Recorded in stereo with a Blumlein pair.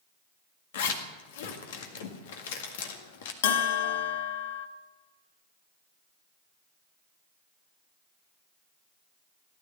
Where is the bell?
55° left, 1.1 m.